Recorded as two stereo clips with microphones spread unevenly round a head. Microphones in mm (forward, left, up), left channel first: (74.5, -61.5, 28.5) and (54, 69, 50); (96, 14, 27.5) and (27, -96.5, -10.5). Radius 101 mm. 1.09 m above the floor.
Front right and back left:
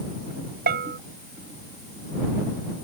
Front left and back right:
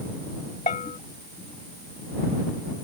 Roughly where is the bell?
Behind left.